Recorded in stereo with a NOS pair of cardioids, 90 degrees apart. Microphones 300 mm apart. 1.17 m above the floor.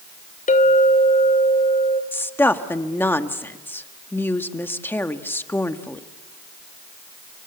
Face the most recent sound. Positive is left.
turn(degrees=5)